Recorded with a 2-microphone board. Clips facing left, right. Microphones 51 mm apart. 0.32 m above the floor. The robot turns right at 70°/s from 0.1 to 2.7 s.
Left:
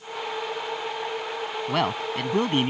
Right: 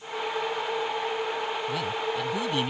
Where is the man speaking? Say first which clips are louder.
Left 3 dB; 70° left; by 2.7 s 140° left.